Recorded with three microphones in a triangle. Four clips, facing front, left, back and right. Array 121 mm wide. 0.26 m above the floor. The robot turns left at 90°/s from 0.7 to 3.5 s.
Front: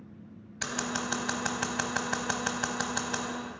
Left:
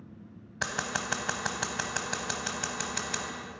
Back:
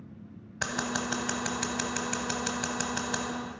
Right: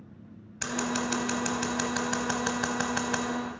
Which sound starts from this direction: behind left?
Scissors, at 0.6 s.